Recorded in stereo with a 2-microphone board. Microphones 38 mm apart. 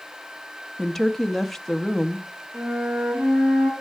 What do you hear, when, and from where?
0.8 s a woman speaking: 10° left (ahead or behind), 0.6 m
2.5 s a flute: 65° right (ahead or behind), 7 m